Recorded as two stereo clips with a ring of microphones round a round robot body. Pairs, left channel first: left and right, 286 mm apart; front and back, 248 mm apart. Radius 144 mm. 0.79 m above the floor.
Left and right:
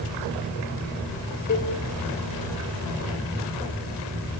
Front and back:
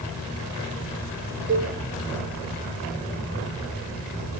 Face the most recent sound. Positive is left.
turn(degrees=140)